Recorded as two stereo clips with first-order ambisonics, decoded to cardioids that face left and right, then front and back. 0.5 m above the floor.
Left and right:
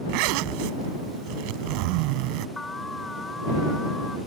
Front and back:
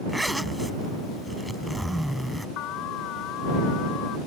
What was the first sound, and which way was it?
A zipper, 90° right.